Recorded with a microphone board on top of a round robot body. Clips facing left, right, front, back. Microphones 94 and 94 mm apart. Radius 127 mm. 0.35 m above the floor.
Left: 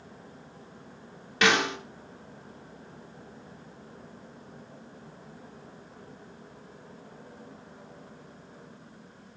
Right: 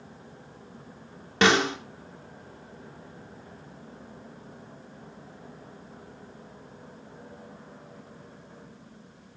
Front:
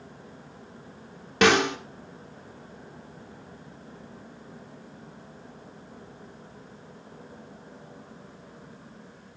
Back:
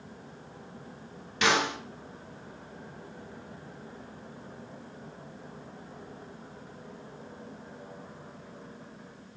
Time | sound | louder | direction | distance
1.4 | a snare drum | right 3 dB, front 6 dB | 35° right | 1.8 m